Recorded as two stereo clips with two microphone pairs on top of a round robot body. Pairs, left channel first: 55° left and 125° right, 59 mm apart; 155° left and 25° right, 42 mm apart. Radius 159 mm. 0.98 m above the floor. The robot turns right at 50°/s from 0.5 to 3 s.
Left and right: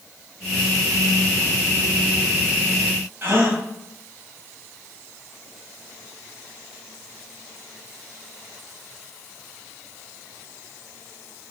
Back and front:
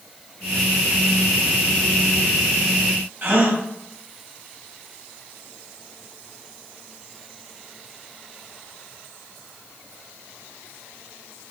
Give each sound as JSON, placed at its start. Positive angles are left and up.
{"t": 3.2, "sound": "a gasp", "azimuth_deg": -70, "distance_m": 1.2}